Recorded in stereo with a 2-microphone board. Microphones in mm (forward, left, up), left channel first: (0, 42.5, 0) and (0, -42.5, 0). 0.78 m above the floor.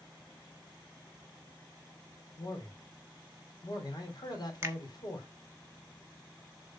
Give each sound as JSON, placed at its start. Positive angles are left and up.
{"t": 2.4, "sound": "a man speaking", "side_deg": 55, "distance_m": 3.0}
{"t": 4.6, "sound": "a finger snap", "side_deg": -30, "distance_m": 1.2}